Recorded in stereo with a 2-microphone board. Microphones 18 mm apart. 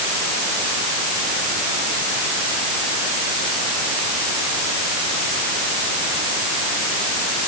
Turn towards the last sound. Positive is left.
No sound to turn to.